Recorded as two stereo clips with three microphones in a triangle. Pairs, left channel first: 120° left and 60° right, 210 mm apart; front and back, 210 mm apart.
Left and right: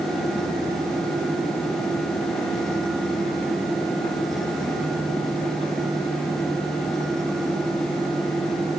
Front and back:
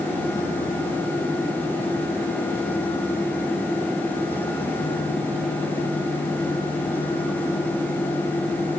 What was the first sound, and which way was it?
Only background noise.